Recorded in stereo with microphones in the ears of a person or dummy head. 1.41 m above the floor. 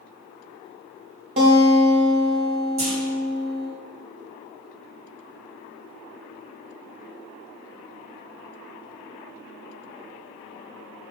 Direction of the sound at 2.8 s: 85° right.